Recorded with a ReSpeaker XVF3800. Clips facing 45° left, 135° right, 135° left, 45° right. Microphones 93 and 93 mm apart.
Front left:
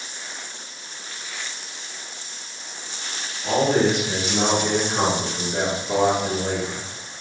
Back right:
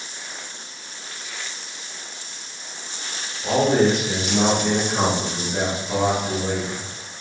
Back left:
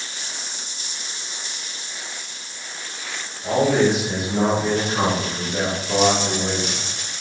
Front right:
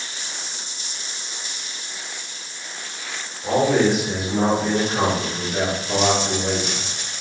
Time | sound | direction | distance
3.4 | a man speaking | 115° right | 1.5 m